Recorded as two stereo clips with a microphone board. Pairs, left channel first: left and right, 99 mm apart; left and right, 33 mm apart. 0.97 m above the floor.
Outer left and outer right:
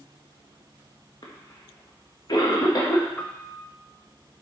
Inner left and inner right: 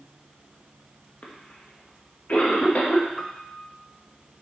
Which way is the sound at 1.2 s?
45° left (ahead or behind).